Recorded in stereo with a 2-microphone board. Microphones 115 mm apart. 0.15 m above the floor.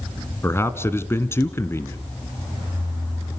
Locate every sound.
0.4 s a man speaking: 20° left (ahead or behind), 1.2 m